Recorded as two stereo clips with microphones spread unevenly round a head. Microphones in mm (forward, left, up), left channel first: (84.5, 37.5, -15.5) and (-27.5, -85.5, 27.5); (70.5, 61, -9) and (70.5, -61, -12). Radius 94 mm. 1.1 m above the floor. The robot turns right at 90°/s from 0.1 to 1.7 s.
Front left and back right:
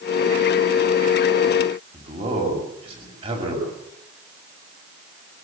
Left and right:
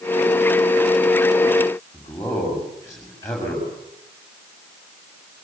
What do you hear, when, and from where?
1.9 s a man speaking: 165° left, 7 m